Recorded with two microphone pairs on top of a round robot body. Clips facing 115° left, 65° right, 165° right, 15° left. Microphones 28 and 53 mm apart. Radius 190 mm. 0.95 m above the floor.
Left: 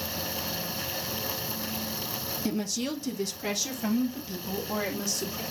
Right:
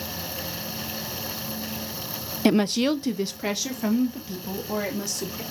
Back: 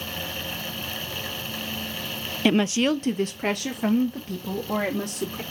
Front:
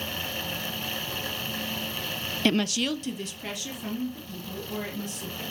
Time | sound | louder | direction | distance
2.5 | a woman speaking | right 11 dB, back 5 dB | 90° right | 0.5 m